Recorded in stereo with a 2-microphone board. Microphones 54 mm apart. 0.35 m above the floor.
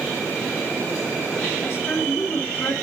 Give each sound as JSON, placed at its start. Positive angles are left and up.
{"t": 1.6, "sound": "a woman speaking", "side_deg": 40, "distance_m": 3.5}